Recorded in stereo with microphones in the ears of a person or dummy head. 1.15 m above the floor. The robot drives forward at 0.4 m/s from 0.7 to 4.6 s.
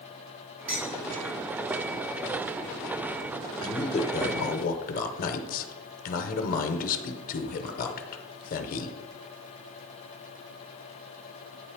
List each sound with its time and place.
0.7 s dishes clattering: 45° right (ahead or behind), 2.5 m
3.6 s a man speaking: 35° left (ahead or behind), 0.8 m; by 9.0 s 45° left (ahead or behind), 0.6 m